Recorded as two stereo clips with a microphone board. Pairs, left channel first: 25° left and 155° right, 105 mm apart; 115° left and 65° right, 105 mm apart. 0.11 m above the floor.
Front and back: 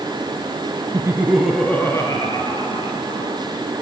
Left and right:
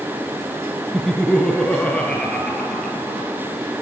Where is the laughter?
165° right, 1.5 m; by 3.4 s 30° left, 3 m.